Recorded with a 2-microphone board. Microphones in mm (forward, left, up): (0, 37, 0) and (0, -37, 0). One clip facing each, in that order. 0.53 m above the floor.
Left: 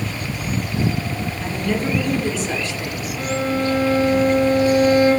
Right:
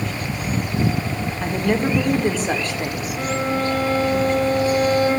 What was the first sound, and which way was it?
A woman speaking, 45° right (ahead or behind).